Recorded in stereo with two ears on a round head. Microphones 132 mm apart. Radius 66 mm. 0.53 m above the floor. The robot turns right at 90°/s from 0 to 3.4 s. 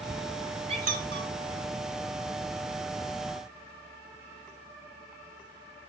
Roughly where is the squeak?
Right.